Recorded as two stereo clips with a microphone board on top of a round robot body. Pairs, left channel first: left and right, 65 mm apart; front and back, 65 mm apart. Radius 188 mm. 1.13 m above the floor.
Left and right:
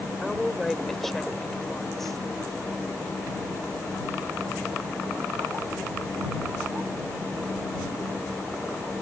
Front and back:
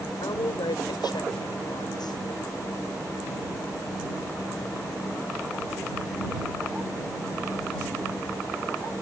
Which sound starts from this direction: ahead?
A woman speaking, at 0.2 s.